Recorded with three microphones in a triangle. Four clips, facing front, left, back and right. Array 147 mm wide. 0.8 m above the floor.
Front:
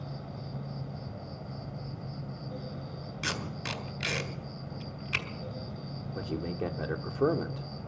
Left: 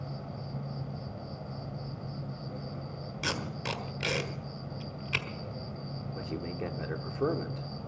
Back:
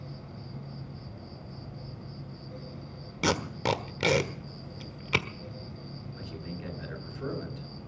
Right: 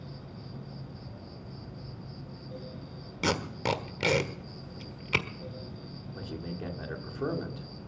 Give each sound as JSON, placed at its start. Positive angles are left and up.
{"t": 0.0, "sound": "an insect", "azimuth_deg": 60, "distance_m": 2.5}
{"t": 3.2, "sound": "tape being pulled", "azimuth_deg": -155, "distance_m": 1.4}
{"t": 6.2, "sound": "a man speaking", "azimuth_deg": 15, "distance_m": 2.0}